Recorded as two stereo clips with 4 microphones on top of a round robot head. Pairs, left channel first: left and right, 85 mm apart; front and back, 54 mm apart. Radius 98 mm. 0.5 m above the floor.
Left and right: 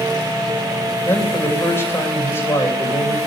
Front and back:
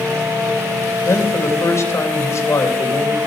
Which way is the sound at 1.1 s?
25° left.